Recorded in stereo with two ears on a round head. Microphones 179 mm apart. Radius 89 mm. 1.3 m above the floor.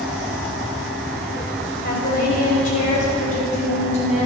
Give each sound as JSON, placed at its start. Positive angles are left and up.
{"t": 1.8, "sound": "a woman speaking", "side_deg": 50, "distance_m": 7.5}